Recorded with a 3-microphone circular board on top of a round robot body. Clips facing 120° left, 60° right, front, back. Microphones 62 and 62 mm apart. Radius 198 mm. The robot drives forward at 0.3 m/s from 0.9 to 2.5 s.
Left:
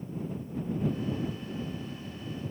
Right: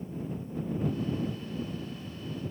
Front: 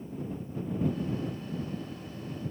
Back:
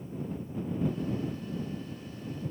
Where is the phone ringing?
I don't hear a phone ringing.